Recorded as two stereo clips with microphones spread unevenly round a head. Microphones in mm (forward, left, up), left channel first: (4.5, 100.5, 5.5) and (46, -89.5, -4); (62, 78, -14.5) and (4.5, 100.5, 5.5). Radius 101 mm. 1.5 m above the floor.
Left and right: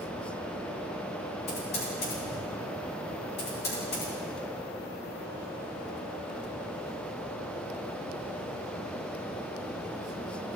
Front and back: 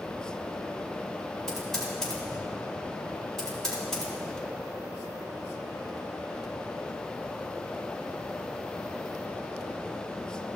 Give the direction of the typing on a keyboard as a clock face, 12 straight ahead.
10 o'clock.